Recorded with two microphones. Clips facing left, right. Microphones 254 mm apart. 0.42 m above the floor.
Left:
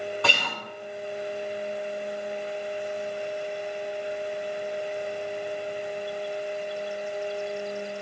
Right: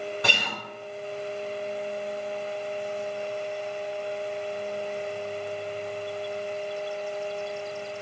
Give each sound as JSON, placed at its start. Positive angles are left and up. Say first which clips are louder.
{"t": 0.2, "sound": "a guitar", "louder": "left 1 dB", "side_deg": -20, "distance_m": 3.5}